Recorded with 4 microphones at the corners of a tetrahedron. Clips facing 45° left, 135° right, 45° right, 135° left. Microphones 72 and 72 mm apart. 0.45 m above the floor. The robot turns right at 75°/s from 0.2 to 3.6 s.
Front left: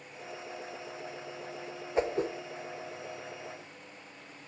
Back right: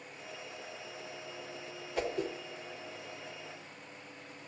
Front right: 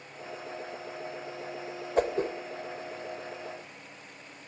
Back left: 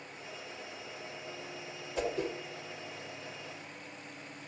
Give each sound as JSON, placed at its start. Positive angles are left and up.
{"t": 2.0, "sound": "a whoosh", "azimuth_deg": -15, "distance_m": 0.7}